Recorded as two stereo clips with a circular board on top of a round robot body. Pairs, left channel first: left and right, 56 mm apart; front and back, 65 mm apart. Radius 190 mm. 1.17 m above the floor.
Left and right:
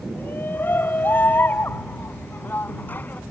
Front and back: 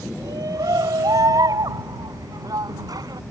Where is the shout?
150° left.